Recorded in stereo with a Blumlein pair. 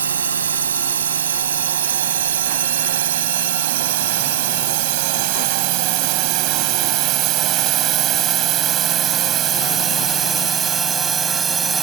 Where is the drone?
70° right; by 11.8 s 20° right.